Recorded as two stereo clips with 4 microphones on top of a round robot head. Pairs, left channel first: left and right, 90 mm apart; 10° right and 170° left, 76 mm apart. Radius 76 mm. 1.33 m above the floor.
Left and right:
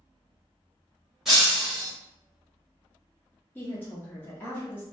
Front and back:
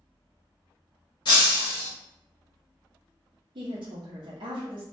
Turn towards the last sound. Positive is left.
turn(degrees=160)